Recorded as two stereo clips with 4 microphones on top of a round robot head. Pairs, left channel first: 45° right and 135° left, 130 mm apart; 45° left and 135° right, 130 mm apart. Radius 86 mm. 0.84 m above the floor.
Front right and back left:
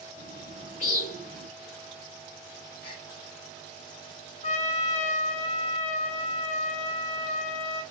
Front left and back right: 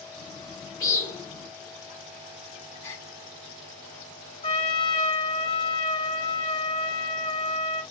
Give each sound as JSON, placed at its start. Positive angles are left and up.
{"t": 0.2, "sound": "a bird", "azimuth_deg": -25, "distance_m": 3.0}
{"t": 2.8, "sound": "a gasp", "azimuth_deg": -30, "distance_m": 2.5}
{"t": 4.4, "sound": "a trumpet", "azimuth_deg": -10, "distance_m": 2.5}